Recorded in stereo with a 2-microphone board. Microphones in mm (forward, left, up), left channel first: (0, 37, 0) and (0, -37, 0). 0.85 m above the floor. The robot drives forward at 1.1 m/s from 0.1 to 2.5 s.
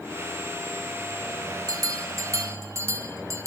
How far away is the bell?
About 1.5 m.